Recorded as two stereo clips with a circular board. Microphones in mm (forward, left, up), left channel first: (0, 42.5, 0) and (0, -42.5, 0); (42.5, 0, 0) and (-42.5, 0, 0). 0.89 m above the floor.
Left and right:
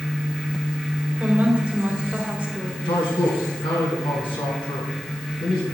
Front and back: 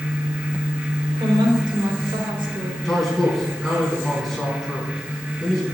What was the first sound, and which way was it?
A woman speaking, 165° right.